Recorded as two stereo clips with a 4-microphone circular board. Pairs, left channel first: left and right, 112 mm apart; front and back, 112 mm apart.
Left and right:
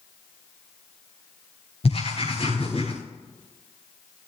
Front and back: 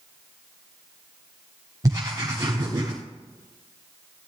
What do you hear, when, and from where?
1.8 s writing: 120° left, 7.5 m